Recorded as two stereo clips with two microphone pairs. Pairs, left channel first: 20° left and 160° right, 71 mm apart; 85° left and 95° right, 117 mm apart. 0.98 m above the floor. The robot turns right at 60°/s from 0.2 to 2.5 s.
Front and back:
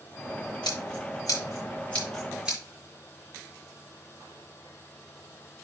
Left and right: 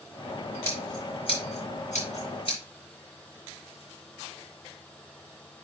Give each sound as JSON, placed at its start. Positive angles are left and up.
{"t": 0.6, "sound": "scissors", "azimuth_deg": 10, "distance_m": 5.5}